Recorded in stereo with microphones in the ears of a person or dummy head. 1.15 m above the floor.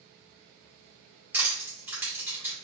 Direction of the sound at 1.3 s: 10° right (ahead or behind).